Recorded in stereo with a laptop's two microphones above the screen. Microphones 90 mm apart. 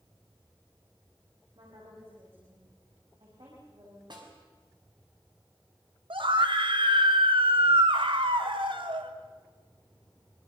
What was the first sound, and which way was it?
A woman speaking, 70° right (ahead or behind).